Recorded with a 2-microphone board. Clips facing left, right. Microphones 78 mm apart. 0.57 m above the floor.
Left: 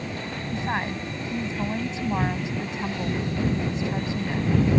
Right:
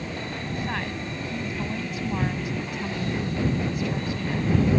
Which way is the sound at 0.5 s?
25° left (ahead or behind).